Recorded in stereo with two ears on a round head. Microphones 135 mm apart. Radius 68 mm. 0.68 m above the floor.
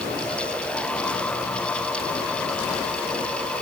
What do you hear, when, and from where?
Only background noise.